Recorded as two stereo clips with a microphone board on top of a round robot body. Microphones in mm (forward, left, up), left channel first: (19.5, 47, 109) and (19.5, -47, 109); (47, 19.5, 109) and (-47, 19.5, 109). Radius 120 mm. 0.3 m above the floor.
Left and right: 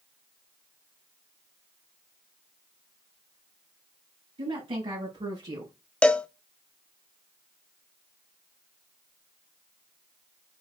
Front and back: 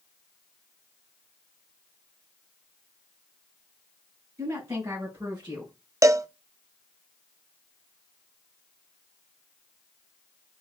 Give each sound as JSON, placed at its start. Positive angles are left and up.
{"t": 4.4, "sound": "a woman speaking", "azimuth_deg": -120, "distance_m": 4.5}
{"t": 6.0, "sound": "a cowbell", "azimuth_deg": 160, "distance_m": 0.7}